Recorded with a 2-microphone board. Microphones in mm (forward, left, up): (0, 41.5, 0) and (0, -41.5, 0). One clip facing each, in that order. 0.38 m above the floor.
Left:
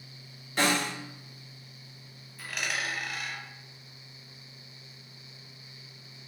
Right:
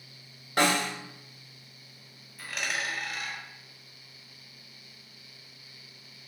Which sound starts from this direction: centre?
A dropped coin, at 2.4 s.